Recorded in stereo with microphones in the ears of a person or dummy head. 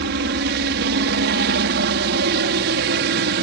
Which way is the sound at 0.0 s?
60° right (ahead or behind).